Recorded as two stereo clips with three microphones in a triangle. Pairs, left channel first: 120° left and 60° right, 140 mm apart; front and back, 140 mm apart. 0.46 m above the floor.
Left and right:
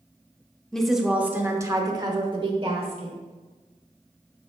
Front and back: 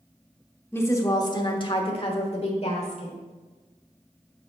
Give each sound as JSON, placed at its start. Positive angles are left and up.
{"t": 0.7, "sound": "a woman speaking", "azimuth_deg": 45, "distance_m": 0.9}